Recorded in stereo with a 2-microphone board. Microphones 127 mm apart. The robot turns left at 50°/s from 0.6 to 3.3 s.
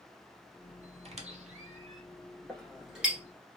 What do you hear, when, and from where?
1.1 s a squeak: 55° right (ahead or behind), 0.6 m; by 2.0 s 65° right (ahead or behind), 0.6 m
2.5 s a clink: 10° left (ahead or behind), 0.9 m; by 3.2 s 10° right (ahead or behind), 0.9 m